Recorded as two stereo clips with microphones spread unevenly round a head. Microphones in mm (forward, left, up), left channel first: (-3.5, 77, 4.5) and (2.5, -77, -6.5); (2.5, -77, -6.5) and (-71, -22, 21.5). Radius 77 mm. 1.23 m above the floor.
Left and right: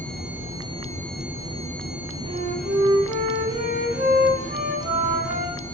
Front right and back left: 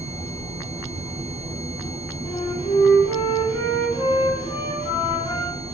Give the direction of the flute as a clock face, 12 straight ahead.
2 o'clock.